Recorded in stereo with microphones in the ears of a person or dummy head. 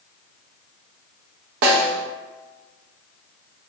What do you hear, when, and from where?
1.6 s a snare drum: 55° right (ahead or behind), 1.0 m